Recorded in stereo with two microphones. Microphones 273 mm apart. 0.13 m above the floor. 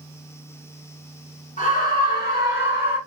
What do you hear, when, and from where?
1.6 s a scream: 30° left (ahead or behind), 1.6 m; by 3.0 s 45° left (ahead or behind), 2.0 m